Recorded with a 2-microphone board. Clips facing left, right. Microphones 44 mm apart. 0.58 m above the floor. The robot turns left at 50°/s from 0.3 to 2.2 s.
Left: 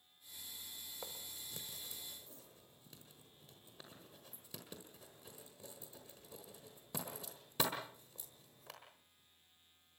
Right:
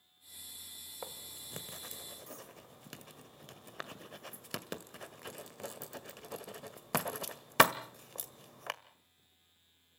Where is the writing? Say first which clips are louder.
Right 5 dB; 20° right (ahead or behind), 1.4 m; by 8.7 s 75° right (ahead or behind), 1.4 m.